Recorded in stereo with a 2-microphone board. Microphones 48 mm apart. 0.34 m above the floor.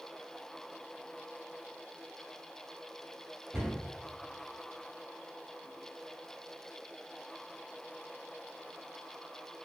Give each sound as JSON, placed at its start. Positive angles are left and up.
{"t": 3.5, "sound": "a cupboard door", "side_deg": 10, "distance_m": 1.5}